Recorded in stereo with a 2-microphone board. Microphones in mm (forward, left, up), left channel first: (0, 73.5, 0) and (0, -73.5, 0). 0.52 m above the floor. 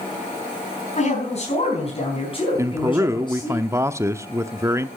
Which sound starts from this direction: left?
A man speaking, at 1.0 s.